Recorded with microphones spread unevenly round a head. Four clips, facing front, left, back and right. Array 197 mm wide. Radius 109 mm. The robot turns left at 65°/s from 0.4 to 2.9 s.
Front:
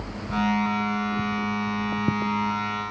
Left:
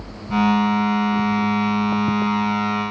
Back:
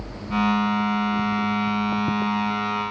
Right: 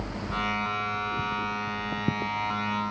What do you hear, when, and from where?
Only background noise.